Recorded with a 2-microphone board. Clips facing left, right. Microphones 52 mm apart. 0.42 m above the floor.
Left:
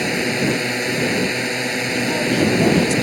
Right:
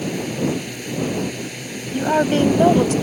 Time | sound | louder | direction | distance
0.0 | a drone | left 3 dB | 80° left | ?
1.9 | a woman speaking | right 4 dB | 45° right (ahead or behind) | ?